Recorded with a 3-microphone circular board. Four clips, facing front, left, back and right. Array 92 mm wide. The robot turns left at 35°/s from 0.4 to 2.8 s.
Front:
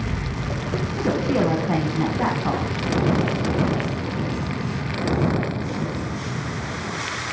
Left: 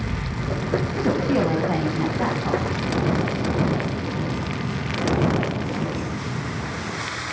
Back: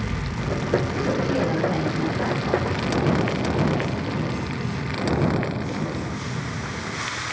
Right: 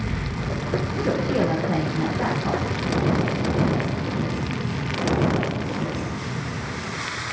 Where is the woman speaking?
65° left, 2 m; by 2.7 s straight ahead, 2 m.